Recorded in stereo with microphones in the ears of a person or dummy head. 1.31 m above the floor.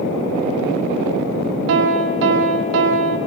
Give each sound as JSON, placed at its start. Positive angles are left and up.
{"t": 1.7, "sound": "a piano", "side_deg": -70, "distance_m": 1.3}